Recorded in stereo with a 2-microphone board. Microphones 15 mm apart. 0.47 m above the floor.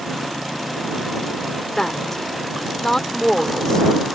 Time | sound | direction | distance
1.8 | a woman speaking | 45° left (ahead or behind) | ?